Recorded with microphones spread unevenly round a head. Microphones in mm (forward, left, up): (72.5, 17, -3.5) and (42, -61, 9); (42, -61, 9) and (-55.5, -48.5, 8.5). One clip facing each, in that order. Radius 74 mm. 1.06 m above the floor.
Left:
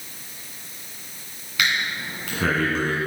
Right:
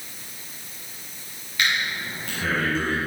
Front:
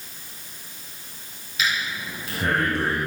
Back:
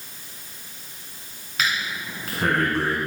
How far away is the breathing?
About 2 m.